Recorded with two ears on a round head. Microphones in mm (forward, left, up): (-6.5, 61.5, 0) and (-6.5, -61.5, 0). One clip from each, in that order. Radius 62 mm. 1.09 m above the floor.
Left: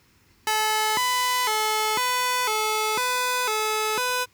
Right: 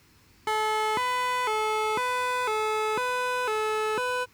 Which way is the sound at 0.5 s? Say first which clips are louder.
Left 3 dB; 85° left.